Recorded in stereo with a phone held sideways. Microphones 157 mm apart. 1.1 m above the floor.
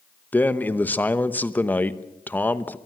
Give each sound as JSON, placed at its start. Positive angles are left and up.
{"t": 0.3, "sound": "a man speaking", "side_deg": 10, "distance_m": 1.0}